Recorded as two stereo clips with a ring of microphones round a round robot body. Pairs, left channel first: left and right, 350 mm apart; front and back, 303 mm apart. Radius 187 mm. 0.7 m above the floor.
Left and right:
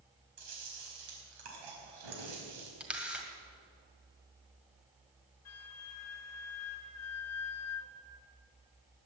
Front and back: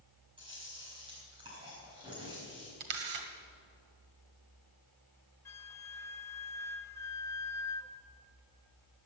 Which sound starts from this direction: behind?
A camera shutter, at 2.8 s.